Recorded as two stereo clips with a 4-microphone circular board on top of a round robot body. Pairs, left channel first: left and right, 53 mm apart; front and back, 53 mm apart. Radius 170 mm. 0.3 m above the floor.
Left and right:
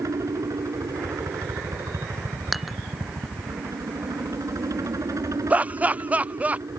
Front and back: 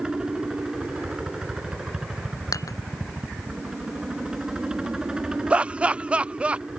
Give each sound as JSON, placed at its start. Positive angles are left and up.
{"t": 0.0, "sound": "a helicopter", "azimuth_deg": -105}
{"t": 2.5, "sound": "dishes clattering", "azimuth_deg": -5}
{"t": 5.5, "sound": "laughter", "azimuth_deg": -130}